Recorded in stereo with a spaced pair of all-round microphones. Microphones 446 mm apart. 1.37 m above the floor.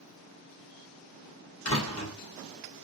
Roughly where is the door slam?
Left.